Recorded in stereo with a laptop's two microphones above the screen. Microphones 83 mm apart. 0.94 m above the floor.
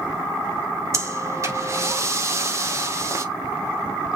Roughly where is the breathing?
Right.